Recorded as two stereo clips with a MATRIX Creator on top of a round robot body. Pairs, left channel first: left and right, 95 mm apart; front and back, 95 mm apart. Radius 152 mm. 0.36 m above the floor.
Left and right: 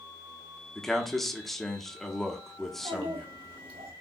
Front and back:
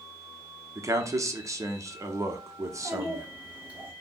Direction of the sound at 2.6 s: 105° right.